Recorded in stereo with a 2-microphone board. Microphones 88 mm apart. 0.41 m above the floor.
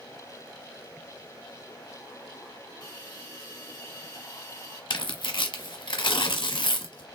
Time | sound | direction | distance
2.8 | a hiss | 55° left (ahead or behind) | 3 m
4.9 | tearing paper | 60° left (ahead or behind) | 1.0 m